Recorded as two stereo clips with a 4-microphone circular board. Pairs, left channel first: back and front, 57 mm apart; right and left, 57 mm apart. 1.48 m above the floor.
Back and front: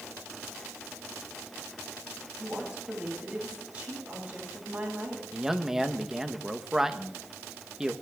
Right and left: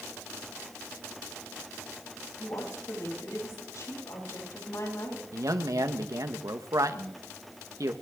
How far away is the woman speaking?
About 8 m.